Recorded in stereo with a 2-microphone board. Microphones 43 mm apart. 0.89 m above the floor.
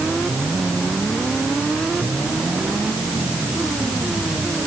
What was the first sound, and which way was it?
Only background noise.